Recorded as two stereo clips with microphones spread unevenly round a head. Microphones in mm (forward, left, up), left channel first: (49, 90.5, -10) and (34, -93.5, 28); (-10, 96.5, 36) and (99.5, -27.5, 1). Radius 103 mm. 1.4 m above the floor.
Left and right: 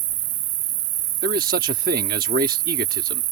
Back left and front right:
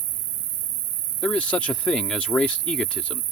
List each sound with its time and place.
0.0 s an insect: 70° right
1.2 s a man speaking: 145° right